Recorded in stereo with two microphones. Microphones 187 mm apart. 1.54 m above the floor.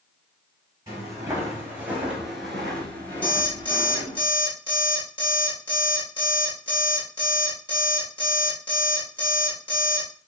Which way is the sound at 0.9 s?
20° right (ahead or behind).